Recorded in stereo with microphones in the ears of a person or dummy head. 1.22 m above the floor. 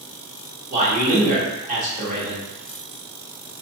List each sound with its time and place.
0.7 s a man speaking: 40° right (ahead or behind), 0.8 m